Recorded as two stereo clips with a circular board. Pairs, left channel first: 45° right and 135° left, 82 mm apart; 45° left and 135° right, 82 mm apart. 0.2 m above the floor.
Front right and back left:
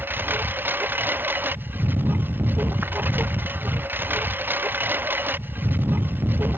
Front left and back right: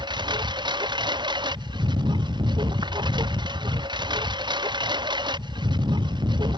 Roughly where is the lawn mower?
Behind.